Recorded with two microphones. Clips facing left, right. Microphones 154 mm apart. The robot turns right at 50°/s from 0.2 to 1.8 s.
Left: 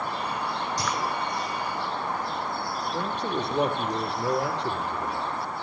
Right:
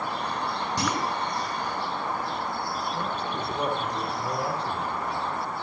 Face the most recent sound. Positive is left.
turn(degrees=75)  # may be behind; listen again after turning